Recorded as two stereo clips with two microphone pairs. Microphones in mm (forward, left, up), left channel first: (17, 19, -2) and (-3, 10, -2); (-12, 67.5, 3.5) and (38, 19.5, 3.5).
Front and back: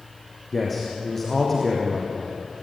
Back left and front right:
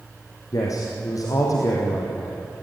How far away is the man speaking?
About 5 m.